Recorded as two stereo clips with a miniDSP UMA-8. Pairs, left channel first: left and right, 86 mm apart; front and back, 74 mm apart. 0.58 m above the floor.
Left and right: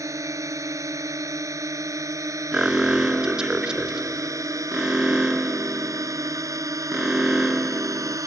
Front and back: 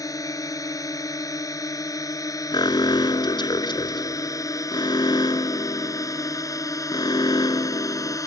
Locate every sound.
0.0 s a drone: 40° right
2.5 s an alarm: 10° right